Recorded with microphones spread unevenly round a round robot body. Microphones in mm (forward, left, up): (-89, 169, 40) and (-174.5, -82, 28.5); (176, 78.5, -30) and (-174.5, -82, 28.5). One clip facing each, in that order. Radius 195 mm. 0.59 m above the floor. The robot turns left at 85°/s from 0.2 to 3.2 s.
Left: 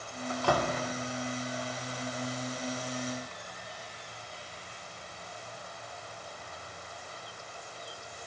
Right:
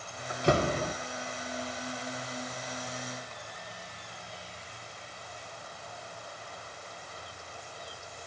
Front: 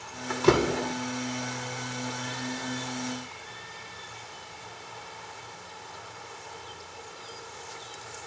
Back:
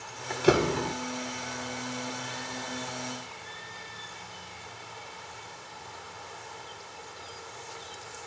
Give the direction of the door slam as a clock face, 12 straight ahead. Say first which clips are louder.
Right 3 dB, front 1 dB; 1 o'clock.